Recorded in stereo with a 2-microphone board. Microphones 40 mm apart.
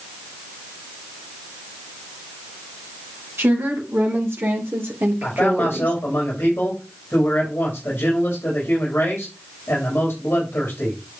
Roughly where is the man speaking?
Left.